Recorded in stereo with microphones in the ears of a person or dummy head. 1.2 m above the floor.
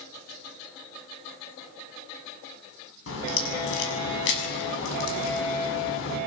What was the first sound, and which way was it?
A crack, 75° left (ahead or behind).